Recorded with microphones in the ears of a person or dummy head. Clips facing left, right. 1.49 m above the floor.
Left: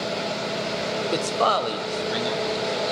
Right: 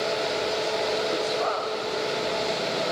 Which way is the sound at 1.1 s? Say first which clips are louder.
Left 3 dB; 75° left (ahead or behind).